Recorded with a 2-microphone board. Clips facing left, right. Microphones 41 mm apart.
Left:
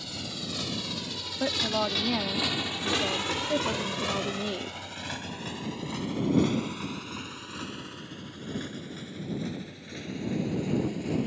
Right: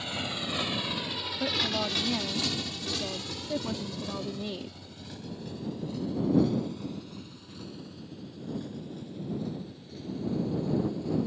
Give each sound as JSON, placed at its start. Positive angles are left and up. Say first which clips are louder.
{"t": 0.0, "sound": "a motorcycle", "louder": "right 4 dB", "side_deg": -40}
{"t": 1.4, "sound": "a woman speaking", "louder": "left 3 dB", "side_deg": 25}